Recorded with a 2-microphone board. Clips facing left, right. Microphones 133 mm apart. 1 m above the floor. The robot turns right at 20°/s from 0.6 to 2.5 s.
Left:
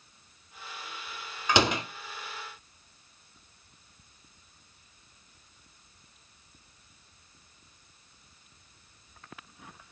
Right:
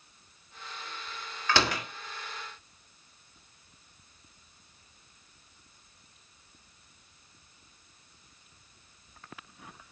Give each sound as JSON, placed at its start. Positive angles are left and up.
{"t": 1.5, "sound": "a door slam", "side_deg": 15, "distance_m": 1.5}